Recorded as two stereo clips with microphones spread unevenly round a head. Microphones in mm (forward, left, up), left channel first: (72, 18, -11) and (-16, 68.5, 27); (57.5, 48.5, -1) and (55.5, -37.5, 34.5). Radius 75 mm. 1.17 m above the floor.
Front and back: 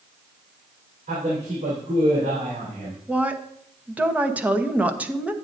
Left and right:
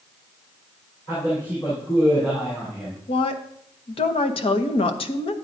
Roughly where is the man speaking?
Behind left.